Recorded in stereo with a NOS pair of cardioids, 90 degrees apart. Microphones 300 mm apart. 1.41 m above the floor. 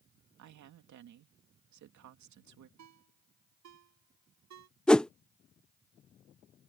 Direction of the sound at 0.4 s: 70° right.